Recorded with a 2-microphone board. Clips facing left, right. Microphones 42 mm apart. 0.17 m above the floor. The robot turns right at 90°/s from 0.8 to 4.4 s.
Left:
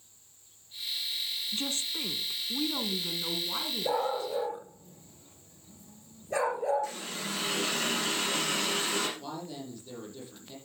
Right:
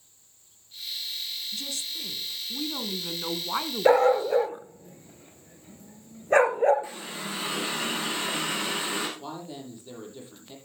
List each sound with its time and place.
1.5 s a woman speaking: 70° left, 1.3 m; by 4.7 s 30° right, 1.3 m
3.9 s a dog barking: 65° right (ahead or behind), 1.3 m; by 6.9 s 50° right (ahead or behind), 1.3 m
6.8 s a running tap: 20° right (ahead or behind), 5.5 m
9.2 s a woman speaking: 20° right (ahead or behind), 6.5 m